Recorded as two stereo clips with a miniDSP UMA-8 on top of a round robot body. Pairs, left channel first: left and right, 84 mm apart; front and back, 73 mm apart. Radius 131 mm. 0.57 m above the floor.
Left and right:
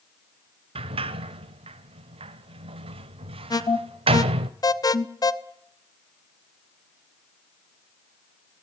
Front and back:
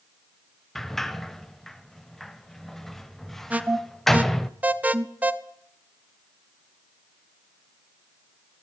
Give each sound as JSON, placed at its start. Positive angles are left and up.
{"t": 0.8, "sound": "a sliding door", "azimuth_deg": -85, "distance_m": 0.7}
{"t": 3.5, "sound": "an alarm", "azimuth_deg": 115, "distance_m": 1.2}